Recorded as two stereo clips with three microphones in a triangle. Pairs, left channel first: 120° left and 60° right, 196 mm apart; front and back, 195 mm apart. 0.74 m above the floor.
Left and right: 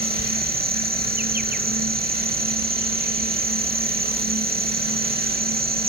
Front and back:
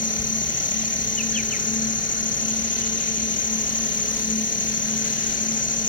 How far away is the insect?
About 0.8 m.